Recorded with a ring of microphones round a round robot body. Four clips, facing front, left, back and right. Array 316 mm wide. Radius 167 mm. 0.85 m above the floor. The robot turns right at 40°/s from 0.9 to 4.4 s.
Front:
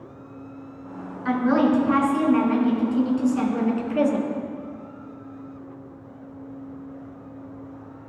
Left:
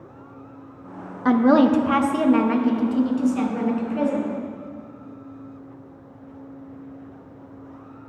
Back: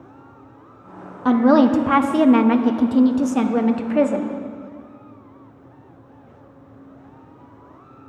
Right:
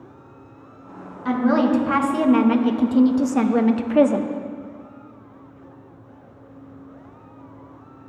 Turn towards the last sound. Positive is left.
turn(degrees=-95)